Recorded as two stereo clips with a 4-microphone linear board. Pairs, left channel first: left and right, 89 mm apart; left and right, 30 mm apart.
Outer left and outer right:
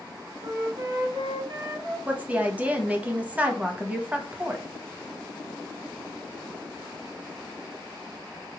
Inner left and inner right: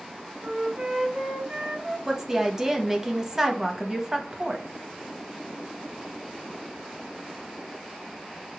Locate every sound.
0.4 s a flute: 90° right, 1.3 m
2.1 s a woman speaking: 15° right (ahead or behind), 0.7 m